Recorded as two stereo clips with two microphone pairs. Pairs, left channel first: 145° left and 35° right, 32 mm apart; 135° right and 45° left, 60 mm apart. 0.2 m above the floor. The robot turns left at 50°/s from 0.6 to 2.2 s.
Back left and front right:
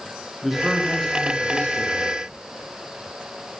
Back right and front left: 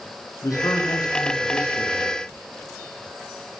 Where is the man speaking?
115° right, 8 m; by 2.2 s 165° left, 8 m.